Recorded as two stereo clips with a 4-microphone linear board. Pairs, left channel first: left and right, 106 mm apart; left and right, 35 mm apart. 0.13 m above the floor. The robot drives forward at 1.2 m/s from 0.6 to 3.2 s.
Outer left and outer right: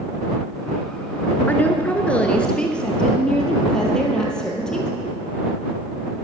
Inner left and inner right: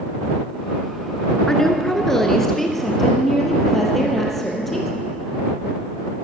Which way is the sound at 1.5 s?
15° left (ahead or behind).